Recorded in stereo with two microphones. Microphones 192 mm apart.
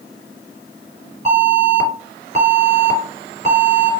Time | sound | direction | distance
1.2 | an alarm | 30° right (ahead or behind) | 2.5 m